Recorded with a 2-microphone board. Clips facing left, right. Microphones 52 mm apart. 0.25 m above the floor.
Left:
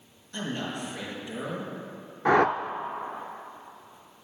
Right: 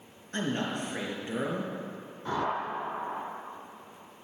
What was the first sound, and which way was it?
A man speaking, 35° right (ahead or behind).